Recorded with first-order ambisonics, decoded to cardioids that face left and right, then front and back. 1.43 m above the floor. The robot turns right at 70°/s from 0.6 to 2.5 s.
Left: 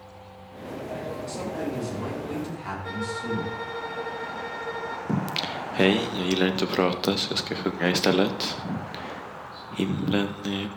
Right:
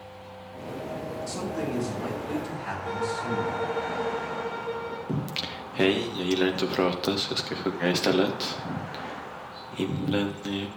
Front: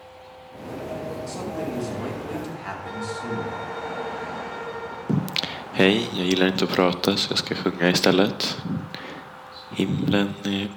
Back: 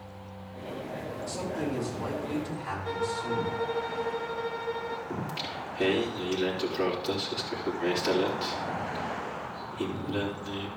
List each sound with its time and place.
1.3 s a man speaking: 70° right, 4.5 m; by 3.6 s 20° left, 4.5 m
2.8 s a violin: 85° left, 3 m
5.1 s singing: 10° left, 0.6 m